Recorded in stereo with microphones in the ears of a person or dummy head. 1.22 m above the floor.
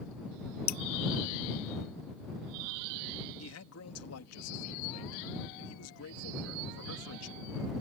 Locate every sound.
0.7 s dripping: 50° left (ahead or behind)
3.4 s a man speaking: 80° left